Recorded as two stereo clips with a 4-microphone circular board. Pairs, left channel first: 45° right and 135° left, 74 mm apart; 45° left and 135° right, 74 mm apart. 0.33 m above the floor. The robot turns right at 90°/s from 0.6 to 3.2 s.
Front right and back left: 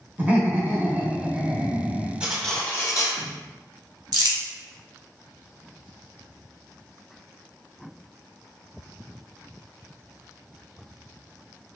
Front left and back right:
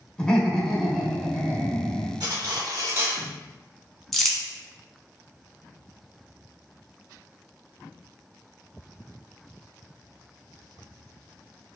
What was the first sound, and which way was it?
Laughter, 115° left.